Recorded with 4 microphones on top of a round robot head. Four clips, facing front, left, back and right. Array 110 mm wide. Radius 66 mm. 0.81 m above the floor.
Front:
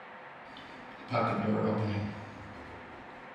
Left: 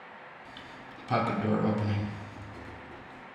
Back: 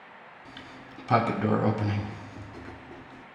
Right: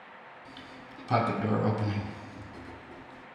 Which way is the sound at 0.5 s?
170° right.